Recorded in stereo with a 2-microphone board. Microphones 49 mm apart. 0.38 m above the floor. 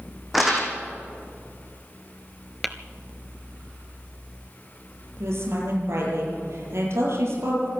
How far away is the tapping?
About 0.9 m.